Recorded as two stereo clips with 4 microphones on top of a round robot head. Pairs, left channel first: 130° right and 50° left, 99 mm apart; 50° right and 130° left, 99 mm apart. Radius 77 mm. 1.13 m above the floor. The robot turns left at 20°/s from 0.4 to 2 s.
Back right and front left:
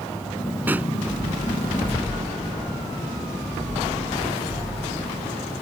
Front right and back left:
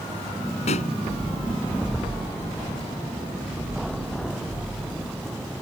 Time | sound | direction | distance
0.7 | a pop | 20° right | ?